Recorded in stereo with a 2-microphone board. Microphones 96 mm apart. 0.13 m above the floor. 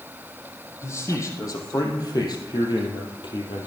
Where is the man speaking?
30° left (ahead or behind), 4 m; by 3.7 s 60° left (ahead or behind), 3.5 m.